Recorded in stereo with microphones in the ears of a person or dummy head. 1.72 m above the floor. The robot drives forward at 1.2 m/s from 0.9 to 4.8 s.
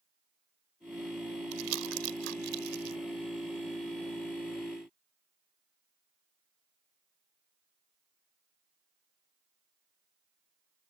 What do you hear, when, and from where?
1.5 s crumpling: 80° right; by 3.0 s 60° right (ahead or behind)